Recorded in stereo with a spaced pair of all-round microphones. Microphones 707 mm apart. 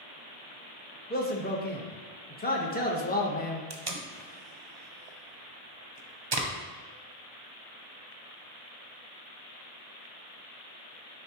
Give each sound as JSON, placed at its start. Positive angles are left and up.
{"t": 1.1, "sound": "a man speaking", "side_deg": 15, "distance_m": 0.9}
{"t": 3.7, "sound": "tape being pulled", "side_deg": -35, "distance_m": 0.7}